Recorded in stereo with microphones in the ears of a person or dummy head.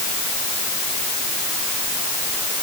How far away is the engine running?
I don't hear an engine running.